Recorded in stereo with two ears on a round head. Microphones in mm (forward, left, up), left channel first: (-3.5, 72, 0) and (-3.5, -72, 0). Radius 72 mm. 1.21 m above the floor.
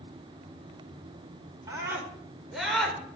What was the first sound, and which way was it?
A scream, 20° right (ahead or behind).